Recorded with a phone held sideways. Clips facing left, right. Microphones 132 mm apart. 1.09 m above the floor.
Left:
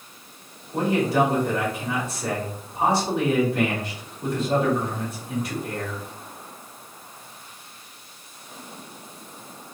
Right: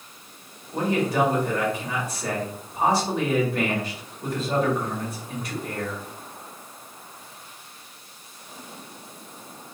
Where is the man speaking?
Centre (ahead or behind), 1.8 m.